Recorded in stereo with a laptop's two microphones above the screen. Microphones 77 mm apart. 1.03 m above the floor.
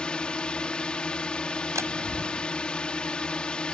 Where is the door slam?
40° right (ahead or behind).